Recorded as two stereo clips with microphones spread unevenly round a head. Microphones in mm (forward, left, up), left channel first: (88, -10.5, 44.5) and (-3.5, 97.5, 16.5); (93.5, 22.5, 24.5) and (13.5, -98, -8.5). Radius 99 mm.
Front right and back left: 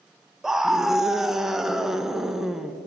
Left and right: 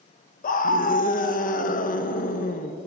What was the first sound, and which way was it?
A scream, 55° left.